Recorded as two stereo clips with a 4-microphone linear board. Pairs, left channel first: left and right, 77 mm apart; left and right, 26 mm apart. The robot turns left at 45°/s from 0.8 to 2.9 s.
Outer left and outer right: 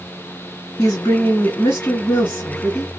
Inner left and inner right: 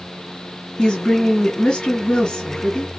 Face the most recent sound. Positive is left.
turn(degrees=5)